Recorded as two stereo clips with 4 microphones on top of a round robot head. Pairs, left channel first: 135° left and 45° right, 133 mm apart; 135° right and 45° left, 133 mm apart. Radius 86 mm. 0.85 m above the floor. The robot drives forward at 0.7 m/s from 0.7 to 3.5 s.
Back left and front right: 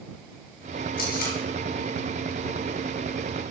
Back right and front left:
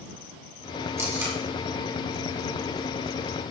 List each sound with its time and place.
1.0 s tape being pulled: 115° left, 4.5 m; by 1.4 s 120° left, 4.5 m